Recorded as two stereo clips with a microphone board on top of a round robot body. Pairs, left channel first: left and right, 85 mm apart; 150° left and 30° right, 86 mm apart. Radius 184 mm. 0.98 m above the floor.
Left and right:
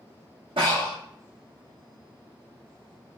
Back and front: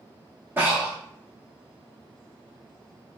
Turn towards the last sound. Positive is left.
turn(degrees=-95)